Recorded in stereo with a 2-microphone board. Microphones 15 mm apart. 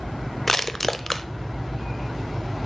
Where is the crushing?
20° left (ahead or behind), 0.6 m.